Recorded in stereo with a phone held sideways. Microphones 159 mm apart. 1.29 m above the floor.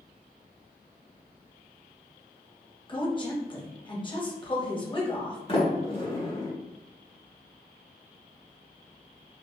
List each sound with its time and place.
2.9 s a woman speaking: 30° left (ahead or behind), 1.2 m
5.5 s a sliding door: 35° left (ahead or behind), 1.2 m